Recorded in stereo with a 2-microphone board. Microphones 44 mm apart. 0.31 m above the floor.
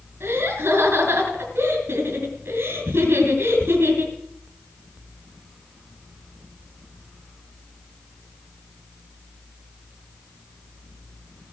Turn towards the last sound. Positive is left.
turn(degrees=-70)  # may be behind; listen again after turning